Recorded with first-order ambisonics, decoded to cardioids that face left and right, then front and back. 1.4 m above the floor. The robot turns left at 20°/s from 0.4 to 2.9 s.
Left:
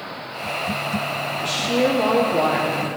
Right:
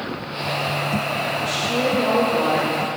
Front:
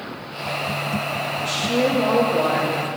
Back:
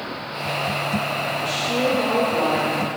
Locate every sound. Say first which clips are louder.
1.4 s a woman speaking: left 4 dB, front 3 dB; 95° left, 0.9 m; by 2.9 s 65° left, 0.9 m